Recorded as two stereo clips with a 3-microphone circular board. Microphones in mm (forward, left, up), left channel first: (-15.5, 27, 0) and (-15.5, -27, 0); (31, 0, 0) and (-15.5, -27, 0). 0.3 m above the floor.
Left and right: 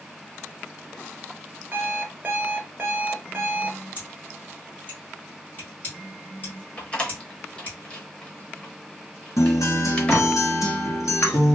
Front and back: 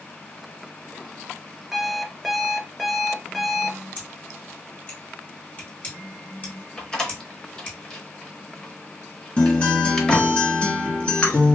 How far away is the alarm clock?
About 0.6 m.